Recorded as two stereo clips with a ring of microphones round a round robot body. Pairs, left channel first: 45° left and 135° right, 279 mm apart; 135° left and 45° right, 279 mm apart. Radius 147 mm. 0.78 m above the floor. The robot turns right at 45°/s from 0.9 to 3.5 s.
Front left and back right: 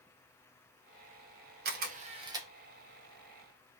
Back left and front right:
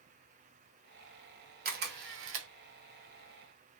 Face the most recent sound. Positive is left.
turn(degrees=-10)